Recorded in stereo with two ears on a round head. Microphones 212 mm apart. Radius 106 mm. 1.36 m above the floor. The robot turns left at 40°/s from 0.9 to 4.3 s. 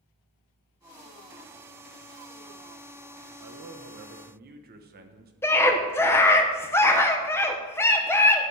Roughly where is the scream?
Centre.